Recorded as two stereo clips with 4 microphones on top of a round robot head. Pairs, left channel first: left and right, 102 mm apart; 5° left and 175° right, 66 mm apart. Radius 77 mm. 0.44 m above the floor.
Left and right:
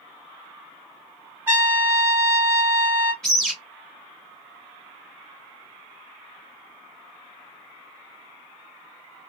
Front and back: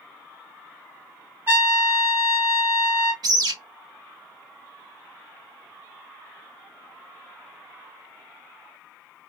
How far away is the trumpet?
About 1.5 m.